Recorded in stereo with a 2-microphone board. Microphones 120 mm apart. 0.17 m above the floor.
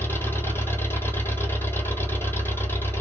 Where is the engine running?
20° left (ahead or behind), 1.2 m.